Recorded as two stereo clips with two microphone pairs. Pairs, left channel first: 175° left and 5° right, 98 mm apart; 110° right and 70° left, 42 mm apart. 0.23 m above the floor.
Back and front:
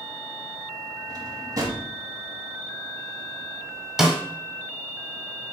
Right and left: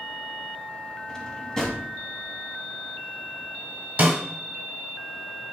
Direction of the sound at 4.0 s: 80° left.